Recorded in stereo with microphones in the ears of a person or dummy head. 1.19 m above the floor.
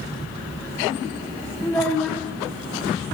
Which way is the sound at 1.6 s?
5° left (ahead or behind).